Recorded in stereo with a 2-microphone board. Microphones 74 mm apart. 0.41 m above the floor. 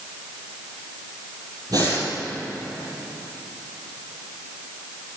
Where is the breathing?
55° right (ahead or behind), 3.5 m.